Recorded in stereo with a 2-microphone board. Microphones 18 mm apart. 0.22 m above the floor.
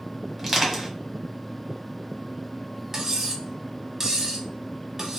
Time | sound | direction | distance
0.4 | crushing | 15° right (ahead or behind) | 1.1 m
2.9 | cutlery clinking | 30° right (ahead or behind) | 0.8 m